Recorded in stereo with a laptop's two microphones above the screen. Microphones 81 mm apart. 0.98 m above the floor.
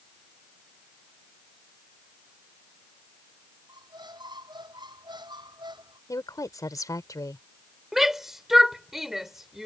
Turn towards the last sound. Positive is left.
turn(degrees=0)  # may be behind; listen again after turning